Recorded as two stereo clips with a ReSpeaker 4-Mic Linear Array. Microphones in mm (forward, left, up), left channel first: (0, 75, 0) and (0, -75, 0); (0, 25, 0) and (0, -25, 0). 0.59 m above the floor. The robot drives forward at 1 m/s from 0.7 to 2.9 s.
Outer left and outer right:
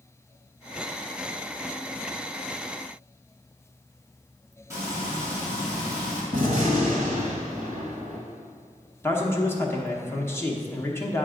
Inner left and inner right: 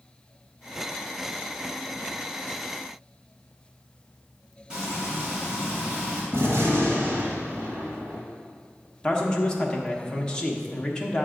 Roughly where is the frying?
Centre.